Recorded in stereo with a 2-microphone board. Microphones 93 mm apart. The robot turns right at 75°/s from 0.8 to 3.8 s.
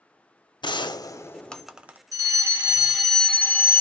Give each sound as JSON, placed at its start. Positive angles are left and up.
{"t": 0.6, "sound": "a gunshot", "azimuth_deg": 115, "distance_m": 0.5}
{"t": 2.1, "sound": "a fire alarm", "azimuth_deg": -65, "distance_m": 2.0}